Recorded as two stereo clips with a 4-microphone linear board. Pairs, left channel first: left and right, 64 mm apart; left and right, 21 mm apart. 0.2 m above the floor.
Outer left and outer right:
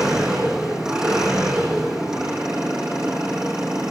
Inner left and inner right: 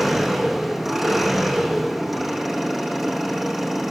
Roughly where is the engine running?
Centre.